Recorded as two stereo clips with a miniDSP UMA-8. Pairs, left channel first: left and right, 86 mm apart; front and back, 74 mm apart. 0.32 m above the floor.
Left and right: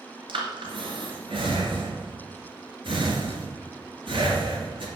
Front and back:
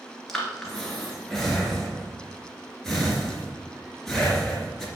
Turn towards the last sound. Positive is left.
turn(degrees=-85)